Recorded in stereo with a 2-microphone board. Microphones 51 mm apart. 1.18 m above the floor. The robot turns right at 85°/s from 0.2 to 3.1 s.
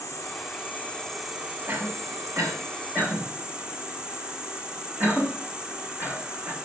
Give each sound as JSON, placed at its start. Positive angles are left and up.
{"t": 0.0, "sound": "an insect", "azimuth_deg": 95, "distance_m": 3.5}
{"t": 1.7, "sound": "a cough", "side_deg": -25, "distance_m": 7.0}